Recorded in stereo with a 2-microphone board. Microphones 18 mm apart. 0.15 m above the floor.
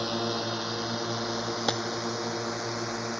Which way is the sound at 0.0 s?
10° right (ahead or behind).